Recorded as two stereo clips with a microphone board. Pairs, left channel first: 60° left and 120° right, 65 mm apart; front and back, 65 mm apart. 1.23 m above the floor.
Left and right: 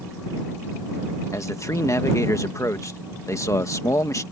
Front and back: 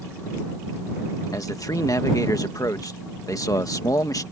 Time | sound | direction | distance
1.3 | a man speaking | 25° left | ?